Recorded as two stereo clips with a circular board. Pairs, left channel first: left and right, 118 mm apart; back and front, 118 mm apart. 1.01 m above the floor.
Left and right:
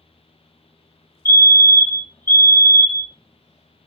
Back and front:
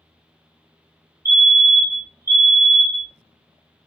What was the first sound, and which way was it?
A fire alarm, 45° left.